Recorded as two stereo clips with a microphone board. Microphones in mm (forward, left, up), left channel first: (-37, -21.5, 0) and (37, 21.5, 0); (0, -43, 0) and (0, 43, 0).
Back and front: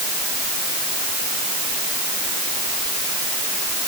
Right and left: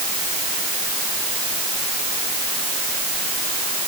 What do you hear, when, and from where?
Only background noise.